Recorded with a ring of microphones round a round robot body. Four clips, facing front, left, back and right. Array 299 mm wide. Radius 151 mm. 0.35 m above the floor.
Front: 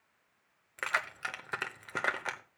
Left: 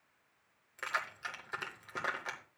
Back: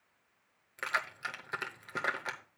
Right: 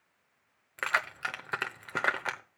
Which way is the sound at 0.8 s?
70° right.